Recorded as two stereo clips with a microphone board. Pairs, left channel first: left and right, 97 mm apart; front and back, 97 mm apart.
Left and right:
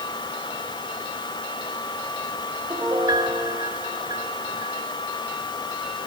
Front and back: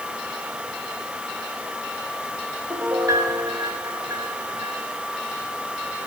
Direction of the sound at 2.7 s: 125° right.